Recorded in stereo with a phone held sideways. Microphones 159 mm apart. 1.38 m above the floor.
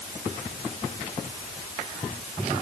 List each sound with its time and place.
Only background noise.